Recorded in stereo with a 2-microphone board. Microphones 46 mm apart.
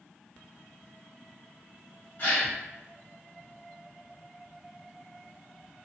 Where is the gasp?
40° left (ahead or behind), 1.5 m.